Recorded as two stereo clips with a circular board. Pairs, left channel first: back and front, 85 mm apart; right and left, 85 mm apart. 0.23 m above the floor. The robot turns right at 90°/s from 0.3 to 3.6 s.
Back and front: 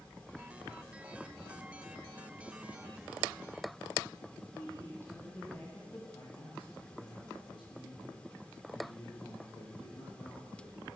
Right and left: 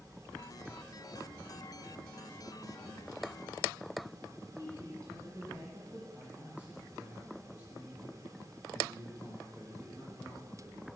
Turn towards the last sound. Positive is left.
turn(degrees=165)